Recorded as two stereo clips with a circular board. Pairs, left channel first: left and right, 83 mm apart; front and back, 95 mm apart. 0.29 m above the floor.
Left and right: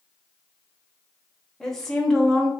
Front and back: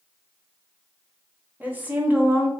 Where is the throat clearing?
No throat clearing in this recording.